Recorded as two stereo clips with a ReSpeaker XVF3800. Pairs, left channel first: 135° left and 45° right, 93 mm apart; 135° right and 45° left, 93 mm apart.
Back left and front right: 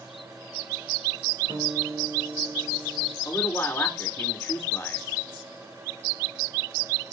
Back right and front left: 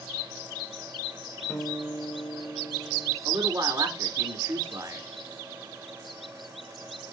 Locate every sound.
1.5 s a guitar: 60° right, 4.5 m
3.2 s a man speaking: 85° left, 1.9 m